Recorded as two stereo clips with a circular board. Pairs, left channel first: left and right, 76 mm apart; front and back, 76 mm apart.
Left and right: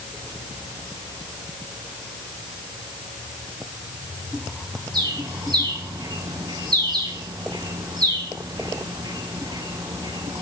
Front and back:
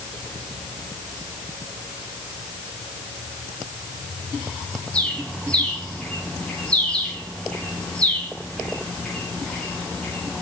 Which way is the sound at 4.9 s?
75° right.